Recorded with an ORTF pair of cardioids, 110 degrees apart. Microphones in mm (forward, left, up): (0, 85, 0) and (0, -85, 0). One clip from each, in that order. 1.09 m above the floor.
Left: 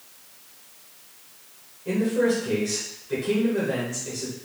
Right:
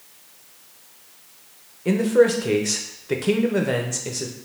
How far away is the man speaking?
About 0.7 m.